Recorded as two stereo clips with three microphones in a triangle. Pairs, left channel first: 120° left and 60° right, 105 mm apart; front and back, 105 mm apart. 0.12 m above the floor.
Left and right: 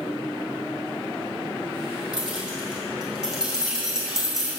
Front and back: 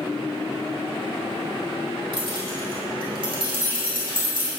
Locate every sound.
2.1 s keys jangling: 145° right, 3.5 m